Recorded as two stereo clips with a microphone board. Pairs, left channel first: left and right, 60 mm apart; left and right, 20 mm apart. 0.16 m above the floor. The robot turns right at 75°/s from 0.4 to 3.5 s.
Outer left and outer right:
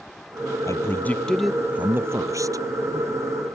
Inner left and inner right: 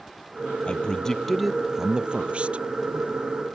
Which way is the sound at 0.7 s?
120° left.